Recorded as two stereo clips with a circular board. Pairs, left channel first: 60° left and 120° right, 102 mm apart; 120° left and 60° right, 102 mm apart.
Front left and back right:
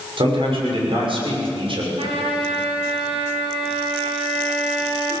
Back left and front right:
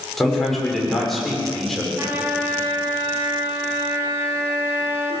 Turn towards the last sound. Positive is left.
turn(degrees=-125)